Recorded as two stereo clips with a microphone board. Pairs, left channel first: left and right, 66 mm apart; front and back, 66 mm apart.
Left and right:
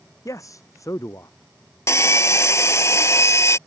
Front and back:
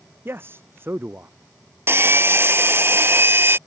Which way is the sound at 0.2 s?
125° left.